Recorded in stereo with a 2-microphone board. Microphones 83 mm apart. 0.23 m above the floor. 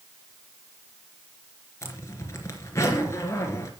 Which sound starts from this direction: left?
A zipper, at 1.8 s.